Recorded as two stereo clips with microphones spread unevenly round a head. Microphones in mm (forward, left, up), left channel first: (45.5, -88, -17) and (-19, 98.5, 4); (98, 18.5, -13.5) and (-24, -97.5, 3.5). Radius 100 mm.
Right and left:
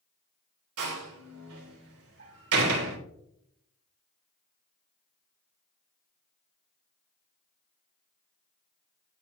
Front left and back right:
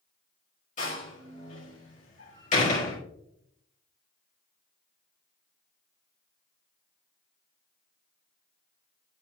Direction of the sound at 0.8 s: 100° left.